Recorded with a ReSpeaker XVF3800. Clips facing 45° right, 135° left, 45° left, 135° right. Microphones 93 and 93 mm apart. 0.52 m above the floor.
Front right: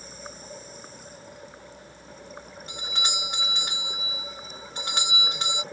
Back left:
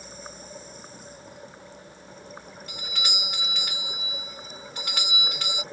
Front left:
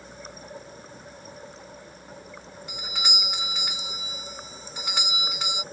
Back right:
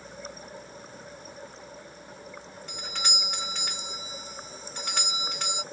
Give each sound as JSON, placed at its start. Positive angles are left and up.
{"t": 2.7, "sound": "a doorbell", "azimuth_deg": -30}